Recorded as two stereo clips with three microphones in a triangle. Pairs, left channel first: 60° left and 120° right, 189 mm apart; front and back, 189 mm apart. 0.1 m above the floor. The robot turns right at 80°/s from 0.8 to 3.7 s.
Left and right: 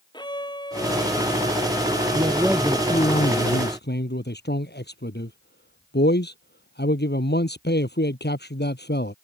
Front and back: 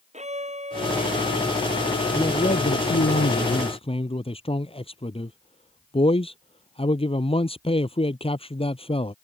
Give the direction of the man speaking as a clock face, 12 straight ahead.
2 o'clock.